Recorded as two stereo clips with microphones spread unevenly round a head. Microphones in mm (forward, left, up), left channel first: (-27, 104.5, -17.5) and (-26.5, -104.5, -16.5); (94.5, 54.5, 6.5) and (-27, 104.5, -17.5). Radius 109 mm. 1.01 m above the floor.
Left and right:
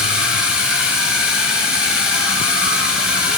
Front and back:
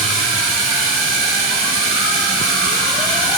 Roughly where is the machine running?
Behind.